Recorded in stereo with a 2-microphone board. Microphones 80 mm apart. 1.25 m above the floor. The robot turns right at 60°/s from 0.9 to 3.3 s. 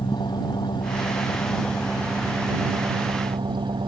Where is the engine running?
110° left; by 3.9 s 105° right.